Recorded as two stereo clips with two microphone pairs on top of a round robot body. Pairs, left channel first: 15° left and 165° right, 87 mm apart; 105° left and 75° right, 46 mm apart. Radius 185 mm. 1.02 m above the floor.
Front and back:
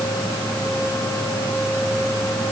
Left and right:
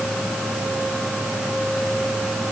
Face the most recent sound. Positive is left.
No sound to turn to.